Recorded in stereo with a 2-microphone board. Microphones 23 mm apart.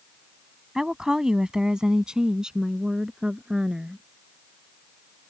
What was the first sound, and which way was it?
A woman speaking, 25° right (ahead or behind).